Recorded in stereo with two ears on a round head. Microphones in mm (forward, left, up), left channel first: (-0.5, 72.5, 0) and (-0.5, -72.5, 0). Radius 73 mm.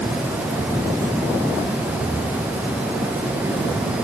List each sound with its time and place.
Only background noise.